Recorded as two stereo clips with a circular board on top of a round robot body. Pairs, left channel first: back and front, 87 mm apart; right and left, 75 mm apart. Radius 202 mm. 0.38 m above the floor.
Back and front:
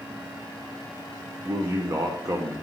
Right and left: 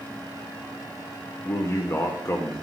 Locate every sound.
1.4 s a man speaking: 45° right, 1.5 m